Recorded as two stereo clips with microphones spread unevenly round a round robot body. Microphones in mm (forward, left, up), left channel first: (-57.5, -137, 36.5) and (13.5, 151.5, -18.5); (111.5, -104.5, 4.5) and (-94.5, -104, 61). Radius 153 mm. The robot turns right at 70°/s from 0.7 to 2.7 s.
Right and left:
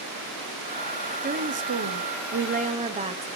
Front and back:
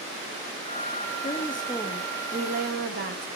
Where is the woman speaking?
25° left, 1.3 m; by 3.3 s 130° left, 1.3 m.